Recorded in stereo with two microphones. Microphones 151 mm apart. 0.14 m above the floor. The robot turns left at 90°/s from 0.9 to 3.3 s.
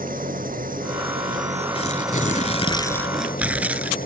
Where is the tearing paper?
130° left; by 4.0 s 10° right.